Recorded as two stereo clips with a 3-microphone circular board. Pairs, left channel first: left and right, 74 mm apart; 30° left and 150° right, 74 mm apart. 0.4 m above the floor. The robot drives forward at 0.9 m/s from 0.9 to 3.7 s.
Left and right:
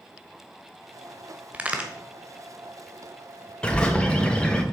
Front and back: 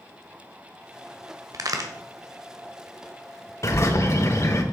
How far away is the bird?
About 0.9 m.